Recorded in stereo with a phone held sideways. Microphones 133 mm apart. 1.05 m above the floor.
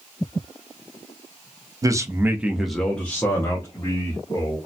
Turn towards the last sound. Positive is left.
turn(degrees=25)  # may be behind; listen again after turning